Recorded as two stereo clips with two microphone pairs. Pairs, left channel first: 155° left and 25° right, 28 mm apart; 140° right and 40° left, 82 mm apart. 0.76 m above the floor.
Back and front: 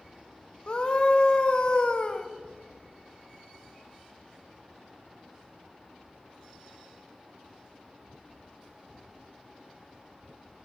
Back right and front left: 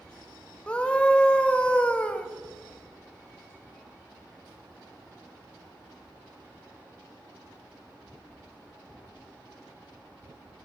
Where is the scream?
150° left, 0.6 m.